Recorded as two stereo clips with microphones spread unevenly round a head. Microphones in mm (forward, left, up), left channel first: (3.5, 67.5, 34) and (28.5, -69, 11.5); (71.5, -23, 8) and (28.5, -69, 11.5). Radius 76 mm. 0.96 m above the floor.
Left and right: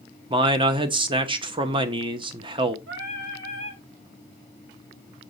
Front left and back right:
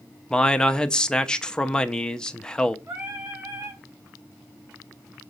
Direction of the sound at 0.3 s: 30° right.